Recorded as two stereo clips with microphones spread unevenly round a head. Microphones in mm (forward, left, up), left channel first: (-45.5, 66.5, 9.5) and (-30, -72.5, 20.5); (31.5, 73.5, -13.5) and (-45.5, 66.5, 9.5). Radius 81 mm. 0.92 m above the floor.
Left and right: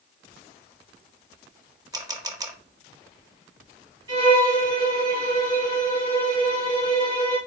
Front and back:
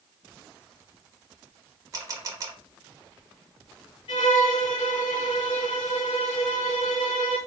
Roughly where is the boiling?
I don't hear boiling.